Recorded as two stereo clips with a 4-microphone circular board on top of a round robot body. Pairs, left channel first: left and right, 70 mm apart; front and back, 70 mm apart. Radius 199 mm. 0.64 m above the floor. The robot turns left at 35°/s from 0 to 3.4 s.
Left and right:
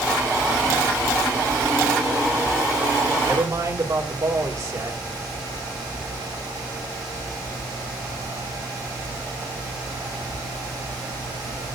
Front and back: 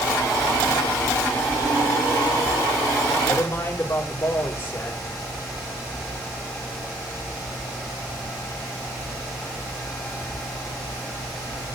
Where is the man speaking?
55° right, 4 m; by 5.0 s 60° right, 4 m.